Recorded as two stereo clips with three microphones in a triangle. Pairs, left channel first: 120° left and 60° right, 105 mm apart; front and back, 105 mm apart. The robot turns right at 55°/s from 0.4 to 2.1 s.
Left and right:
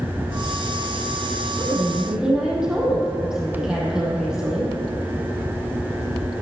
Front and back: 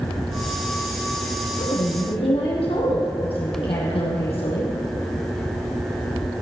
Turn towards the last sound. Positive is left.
turn(degrees=20)